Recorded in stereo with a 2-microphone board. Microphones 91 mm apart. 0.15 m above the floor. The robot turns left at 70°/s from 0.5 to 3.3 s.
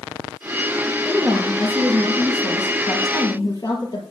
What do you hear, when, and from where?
1.1 s a woman speaking: 150° right, 3.5 m; by 4.0 s 55° left, 3.5 m